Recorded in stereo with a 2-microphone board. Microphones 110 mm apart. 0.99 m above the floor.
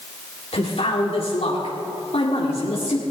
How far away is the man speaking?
About 2 m.